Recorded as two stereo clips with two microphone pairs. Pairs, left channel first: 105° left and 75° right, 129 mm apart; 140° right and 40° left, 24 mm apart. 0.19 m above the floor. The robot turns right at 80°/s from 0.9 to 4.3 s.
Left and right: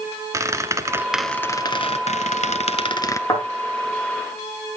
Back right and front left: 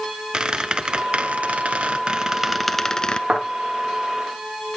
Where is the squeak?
10° right, 0.8 m; by 3.2 s 175° left, 0.8 m.